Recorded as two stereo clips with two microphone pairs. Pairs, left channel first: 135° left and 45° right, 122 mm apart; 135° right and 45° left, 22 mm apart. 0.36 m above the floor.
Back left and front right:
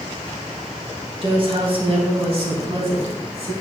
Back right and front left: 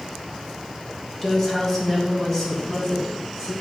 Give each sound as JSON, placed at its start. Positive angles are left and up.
{"t": 1.2, "sound": "a woman speaking", "azimuth_deg": -65, "distance_m": 2.5}